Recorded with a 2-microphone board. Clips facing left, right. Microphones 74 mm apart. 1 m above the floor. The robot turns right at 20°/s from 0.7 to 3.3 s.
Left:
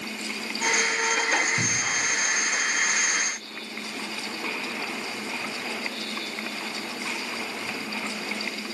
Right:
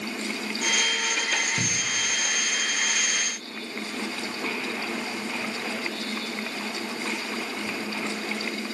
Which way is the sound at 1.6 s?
Centre (ahead or behind).